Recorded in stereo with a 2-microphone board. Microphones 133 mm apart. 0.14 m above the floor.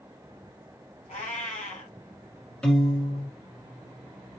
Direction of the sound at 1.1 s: 70° left (ahead or behind).